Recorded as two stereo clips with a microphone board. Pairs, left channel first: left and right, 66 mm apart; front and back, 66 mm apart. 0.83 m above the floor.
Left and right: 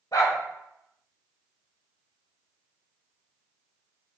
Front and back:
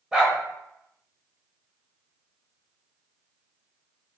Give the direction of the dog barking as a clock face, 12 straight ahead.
9 o'clock.